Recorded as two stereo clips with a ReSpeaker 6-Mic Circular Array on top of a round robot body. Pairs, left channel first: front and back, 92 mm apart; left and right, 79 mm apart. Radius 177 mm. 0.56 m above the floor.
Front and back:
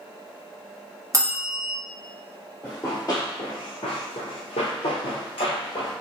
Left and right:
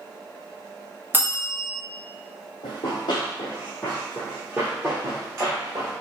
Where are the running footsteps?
70° left, 1.0 m; by 5.9 s 40° right, 1.5 m.